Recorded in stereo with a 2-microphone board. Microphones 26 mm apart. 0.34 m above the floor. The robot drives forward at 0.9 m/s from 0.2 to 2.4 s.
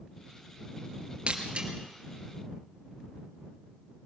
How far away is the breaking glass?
About 3 m.